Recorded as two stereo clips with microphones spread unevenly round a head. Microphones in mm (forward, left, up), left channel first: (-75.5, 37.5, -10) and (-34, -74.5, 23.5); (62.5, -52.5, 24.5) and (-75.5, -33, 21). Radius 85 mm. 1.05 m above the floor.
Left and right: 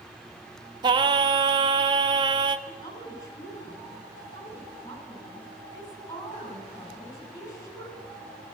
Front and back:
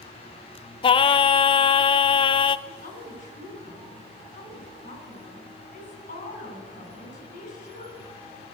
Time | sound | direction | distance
0.8 | singing | 15° right | 0.5 m
2.7 | a woman speaking | 35° left | 7.5 m